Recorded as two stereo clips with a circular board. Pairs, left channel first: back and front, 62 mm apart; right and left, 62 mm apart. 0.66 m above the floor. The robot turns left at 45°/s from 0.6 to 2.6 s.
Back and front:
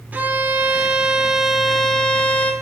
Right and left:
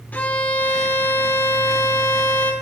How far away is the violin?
About 0.9 m.